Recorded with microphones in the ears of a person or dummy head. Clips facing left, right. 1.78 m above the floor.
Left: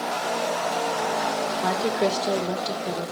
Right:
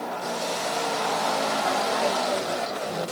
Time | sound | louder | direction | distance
1.6 | a woman speaking | left 5 dB | 80° left | 2.5 m